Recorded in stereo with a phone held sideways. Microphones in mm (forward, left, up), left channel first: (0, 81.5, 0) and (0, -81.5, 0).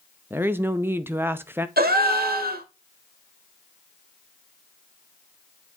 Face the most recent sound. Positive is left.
turn(degrees=-70)  # may be behind; listen again after turning